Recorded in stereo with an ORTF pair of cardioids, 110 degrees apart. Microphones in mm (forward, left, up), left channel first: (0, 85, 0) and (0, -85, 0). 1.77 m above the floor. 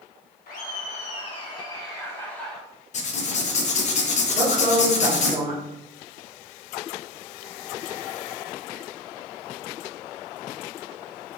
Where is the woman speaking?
30° right, 1.7 m.